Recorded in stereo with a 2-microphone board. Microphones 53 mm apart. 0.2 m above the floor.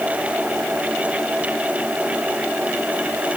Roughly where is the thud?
No thud in this recording.